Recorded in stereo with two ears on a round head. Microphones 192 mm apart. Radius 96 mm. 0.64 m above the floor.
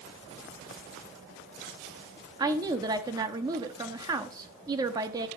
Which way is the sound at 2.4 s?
15° right (ahead or behind).